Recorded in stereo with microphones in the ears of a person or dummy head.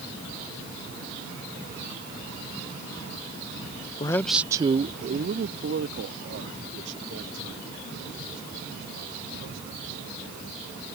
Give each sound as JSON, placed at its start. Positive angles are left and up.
{"t": 4.0, "sound": "a man speaking", "side_deg": 25}